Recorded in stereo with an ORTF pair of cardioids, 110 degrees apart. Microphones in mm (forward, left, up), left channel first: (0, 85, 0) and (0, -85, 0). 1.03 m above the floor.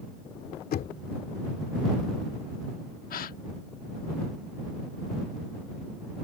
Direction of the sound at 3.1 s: 55° left.